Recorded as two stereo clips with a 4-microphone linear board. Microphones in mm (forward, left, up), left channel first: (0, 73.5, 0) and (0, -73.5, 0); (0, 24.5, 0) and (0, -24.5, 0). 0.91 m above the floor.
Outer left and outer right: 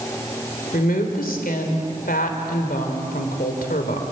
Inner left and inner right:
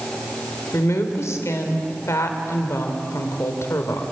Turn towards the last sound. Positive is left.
turn(degrees=80)